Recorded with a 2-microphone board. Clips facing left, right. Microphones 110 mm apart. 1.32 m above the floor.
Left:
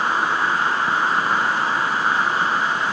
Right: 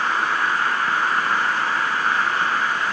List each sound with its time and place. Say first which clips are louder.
0.0 s an insect: left 1 dB; 10° left (ahead or behind)